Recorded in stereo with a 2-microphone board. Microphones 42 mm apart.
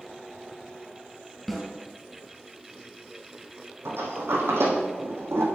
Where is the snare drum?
Centre (ahead or behind), 3.5 m.